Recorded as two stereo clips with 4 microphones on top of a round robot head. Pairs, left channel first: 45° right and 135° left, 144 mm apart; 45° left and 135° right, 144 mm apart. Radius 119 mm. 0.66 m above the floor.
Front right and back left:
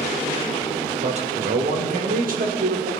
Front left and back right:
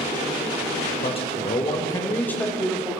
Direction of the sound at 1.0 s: 95° left.